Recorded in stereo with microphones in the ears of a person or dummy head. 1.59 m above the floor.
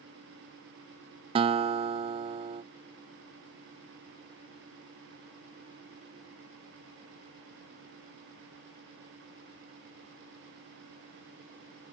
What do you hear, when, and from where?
1.4 s a guitar: 30° right (ahead or behind)